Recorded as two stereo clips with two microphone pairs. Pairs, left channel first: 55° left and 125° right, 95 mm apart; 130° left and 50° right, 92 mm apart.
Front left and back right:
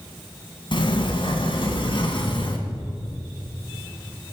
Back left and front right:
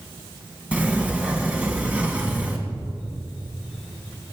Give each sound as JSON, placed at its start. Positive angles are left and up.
{"t": 0.7, "sound": "a sliding door", "azimuth_deg": 25, "distance_m": 2.5}